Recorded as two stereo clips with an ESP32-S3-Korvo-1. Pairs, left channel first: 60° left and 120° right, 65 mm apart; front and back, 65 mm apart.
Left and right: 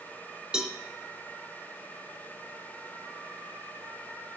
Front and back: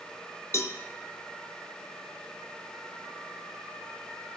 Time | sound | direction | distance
0.5 | a cowbell | 45° right | 0.8 m